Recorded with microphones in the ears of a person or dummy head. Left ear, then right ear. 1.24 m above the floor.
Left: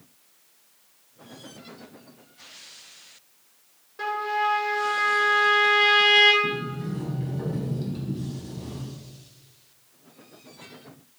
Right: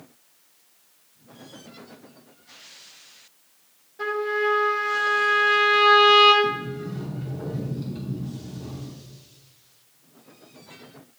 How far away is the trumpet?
About 3.5 m.